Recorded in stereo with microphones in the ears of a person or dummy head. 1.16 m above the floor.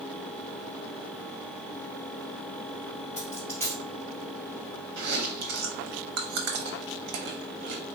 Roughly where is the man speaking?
I don't hear a man speaking.